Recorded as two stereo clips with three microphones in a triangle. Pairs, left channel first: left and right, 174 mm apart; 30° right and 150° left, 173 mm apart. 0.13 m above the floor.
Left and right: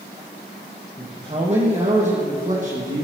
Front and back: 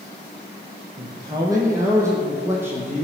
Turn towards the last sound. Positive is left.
turn(degrees=-130)